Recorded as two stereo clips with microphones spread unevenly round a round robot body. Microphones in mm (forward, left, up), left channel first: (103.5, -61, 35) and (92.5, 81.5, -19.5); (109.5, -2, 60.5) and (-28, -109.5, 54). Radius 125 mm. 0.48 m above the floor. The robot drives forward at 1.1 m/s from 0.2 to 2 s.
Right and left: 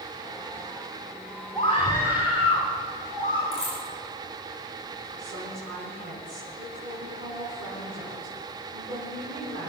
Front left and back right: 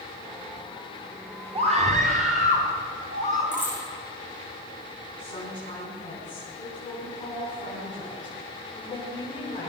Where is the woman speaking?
115° left, 5 m.